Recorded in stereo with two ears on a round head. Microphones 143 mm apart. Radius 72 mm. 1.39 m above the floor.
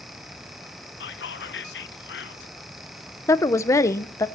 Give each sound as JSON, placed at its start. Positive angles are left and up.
{"t": 1.0, "sound": "whispering", "side_deg": 75, "distance_m": 1.0}
{"t": 3.3, "sound": "a woman speaking", "side_deg": 20, "distance_m": 0.8}